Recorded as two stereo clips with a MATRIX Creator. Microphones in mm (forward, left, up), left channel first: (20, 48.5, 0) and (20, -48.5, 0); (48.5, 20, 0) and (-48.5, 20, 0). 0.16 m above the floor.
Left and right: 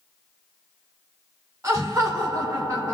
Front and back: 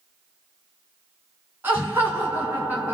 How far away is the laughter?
About 2 m.